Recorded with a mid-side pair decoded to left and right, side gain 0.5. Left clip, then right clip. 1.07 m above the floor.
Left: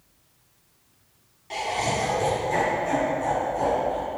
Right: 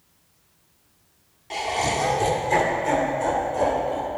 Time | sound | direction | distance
1.5 | laughter | 15° right | 2 m